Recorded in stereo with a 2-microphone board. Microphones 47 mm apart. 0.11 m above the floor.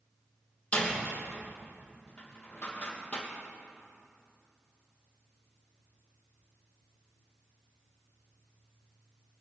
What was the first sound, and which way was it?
A door slam, 30° left (ahead or behind).